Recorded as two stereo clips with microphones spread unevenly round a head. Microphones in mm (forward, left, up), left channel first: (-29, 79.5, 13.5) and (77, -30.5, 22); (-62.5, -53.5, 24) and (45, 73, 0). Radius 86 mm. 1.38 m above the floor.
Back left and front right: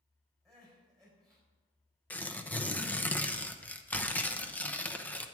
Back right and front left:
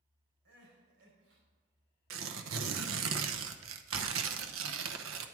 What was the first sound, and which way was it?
Crying, 45° left.